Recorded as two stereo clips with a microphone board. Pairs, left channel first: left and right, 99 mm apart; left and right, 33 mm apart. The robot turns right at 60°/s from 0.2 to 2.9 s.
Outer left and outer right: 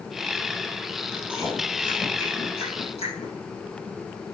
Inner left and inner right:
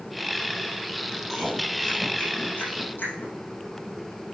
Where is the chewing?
25° right (ahead or behind), 5 m; by 3.3 s 80° left, 5 m.